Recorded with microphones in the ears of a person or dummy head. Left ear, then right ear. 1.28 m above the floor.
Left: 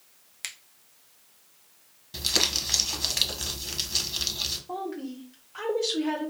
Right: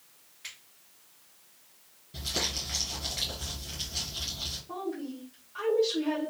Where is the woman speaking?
45° left (ahead or behind), 1.2 m.